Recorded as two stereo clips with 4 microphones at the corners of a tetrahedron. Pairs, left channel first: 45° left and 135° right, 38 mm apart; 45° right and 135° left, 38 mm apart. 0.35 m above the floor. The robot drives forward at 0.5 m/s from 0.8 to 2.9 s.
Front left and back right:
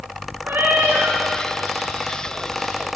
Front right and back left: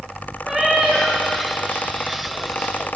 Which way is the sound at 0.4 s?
155° right.